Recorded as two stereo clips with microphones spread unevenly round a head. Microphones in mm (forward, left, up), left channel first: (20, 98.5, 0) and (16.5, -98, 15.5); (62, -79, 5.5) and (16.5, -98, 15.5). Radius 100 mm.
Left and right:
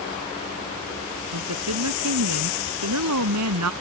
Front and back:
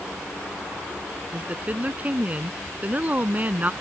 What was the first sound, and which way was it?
A woman speaking, 100° right.